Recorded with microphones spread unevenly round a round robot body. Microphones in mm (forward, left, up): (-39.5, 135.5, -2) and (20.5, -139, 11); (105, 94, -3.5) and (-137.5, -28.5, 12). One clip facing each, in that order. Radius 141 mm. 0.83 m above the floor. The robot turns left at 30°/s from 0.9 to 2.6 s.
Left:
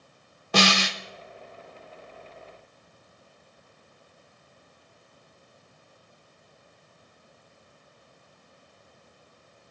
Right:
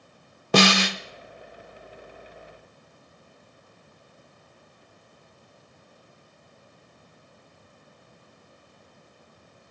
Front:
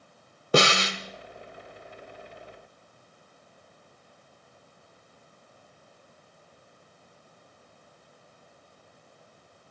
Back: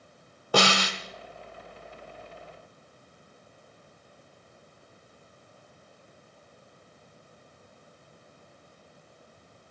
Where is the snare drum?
45° right, 0.8 m.